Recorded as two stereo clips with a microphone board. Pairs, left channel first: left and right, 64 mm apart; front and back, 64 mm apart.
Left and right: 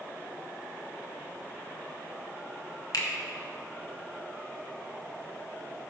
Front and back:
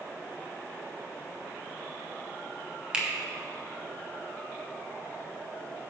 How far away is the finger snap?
About 0.9 m.